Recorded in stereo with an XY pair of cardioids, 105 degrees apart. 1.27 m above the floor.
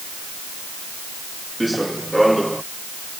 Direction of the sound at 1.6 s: 5° right.